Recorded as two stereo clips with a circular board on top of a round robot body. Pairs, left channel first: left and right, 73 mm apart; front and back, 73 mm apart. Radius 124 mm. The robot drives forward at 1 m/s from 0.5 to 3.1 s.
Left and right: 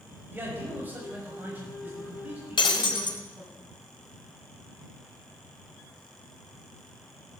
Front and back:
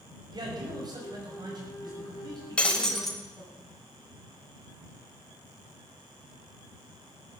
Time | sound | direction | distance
0.3 | a man speaking | 155° right | 6 m
2.6 | breaking glass | 75° left | 2 m